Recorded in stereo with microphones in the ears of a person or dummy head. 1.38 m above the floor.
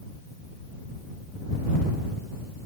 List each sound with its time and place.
Only background noise.